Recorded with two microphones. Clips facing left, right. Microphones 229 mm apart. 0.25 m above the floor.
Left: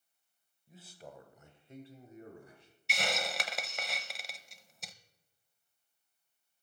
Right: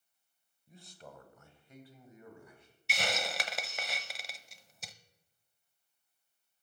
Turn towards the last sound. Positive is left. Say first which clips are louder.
# even
turn(degrees=0)  # may be behind; listen again after turning